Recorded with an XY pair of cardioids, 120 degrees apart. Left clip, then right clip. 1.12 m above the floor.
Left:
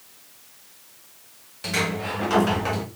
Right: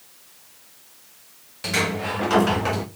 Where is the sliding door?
15° right, 0.6 m.